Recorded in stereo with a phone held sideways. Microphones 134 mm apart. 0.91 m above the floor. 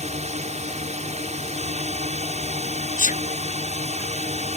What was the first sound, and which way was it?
A drone, 55° right (ahead or behind).